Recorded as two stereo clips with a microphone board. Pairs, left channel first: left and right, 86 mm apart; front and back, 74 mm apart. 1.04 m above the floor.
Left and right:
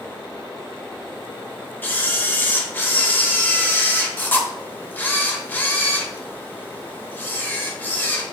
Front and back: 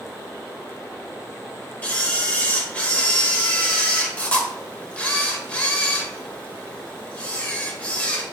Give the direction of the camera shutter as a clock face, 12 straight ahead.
10 o'clock.